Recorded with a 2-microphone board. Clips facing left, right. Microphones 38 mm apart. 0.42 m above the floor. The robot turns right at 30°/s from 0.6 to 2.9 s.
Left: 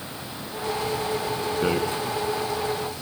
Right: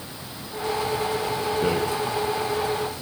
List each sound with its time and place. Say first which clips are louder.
1.6 s a rattle: left 1 dB; 20° left (ahead or behind), 3 m; by 1.8 s 25° left (ahead or behind), 3 m